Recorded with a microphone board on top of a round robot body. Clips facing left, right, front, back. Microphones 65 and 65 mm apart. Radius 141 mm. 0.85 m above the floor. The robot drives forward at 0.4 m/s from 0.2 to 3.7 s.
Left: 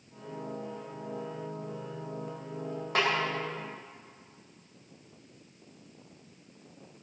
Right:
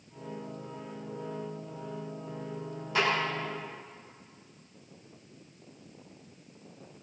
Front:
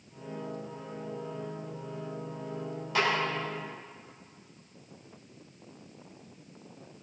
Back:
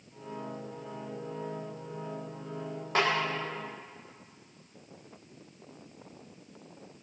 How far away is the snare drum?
About 5 m.